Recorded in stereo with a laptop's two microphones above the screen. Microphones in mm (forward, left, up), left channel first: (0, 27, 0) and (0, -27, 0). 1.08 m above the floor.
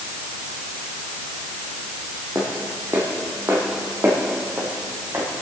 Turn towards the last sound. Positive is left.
turn(degrees=-55)  # may be behind; listen again after turning